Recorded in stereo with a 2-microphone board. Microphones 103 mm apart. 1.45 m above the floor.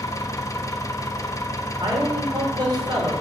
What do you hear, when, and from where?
0.0 s an engine running: 30° left (ahead or behind), 1.0 m
1.8 s a man speaking: 45° right (ahead or behind), 5 m